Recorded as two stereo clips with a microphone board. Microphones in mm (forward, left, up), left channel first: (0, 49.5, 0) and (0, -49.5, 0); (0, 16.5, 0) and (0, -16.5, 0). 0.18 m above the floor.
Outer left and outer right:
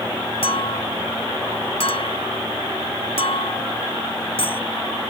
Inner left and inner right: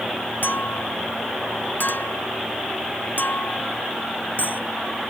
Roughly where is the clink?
Left.